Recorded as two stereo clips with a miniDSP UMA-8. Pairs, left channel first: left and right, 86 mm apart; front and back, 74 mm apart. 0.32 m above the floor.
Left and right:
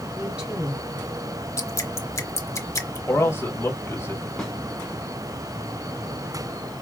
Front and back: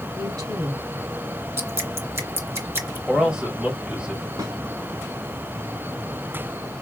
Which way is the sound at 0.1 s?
165° right.